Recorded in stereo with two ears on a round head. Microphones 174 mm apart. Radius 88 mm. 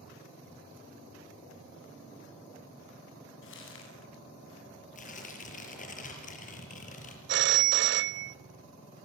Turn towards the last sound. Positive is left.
turn(degrees=-55)  # may be behind; listen again after turning